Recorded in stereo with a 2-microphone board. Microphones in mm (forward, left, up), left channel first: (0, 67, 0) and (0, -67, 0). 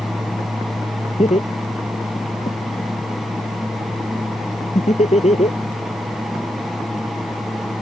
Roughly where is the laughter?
Left.